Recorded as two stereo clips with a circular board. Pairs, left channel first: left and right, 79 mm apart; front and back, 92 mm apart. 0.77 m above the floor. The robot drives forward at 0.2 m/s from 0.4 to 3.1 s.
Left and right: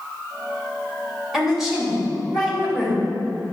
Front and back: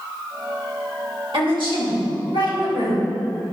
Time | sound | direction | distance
1.3 | a woman speaking | 175° right | 3 m